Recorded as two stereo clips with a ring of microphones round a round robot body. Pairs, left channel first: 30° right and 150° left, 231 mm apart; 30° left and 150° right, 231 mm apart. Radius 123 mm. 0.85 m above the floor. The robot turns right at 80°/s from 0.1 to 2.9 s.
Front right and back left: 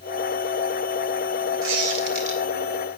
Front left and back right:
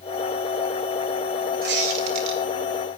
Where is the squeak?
160° left, 2.5 m; by 2.4 s 135° right, 2.5 m.